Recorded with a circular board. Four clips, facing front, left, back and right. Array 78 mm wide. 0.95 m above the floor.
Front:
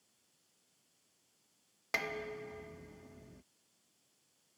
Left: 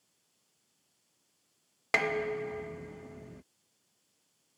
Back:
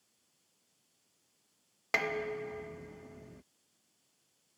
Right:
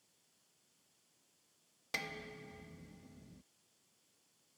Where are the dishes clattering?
105° left.